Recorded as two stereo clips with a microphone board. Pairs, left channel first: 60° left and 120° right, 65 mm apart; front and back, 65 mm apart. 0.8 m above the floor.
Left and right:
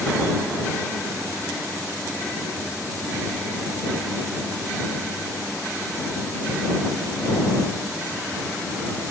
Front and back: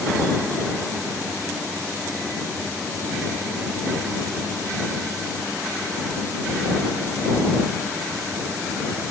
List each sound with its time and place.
Only background noise.